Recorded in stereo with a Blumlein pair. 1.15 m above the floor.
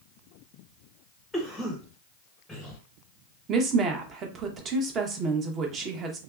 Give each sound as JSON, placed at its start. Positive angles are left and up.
{"t": 1.3, "sound": "a cough", "azimuth_deg": 5, "distance_m": 0.9}
{"t": 3.5, "sound": "a woman speaking", "azimuth_deg": -30, "distance_m": 0.9}